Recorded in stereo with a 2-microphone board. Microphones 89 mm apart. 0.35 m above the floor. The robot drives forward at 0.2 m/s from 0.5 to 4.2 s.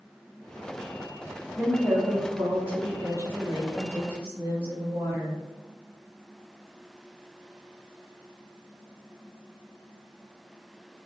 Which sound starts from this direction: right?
A woman speaking, at 1.6 s.